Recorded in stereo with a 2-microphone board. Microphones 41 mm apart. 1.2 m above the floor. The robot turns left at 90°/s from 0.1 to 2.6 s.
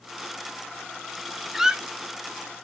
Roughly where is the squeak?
Centre.